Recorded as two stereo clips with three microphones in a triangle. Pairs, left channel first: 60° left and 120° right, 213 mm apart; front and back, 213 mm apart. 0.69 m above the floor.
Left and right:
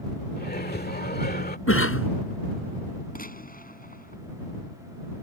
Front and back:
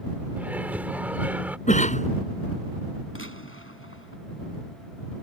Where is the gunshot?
10° left.